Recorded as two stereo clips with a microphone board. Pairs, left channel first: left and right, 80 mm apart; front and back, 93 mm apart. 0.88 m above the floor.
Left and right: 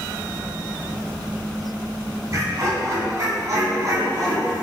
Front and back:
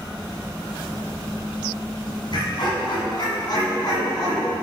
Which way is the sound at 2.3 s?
40° right.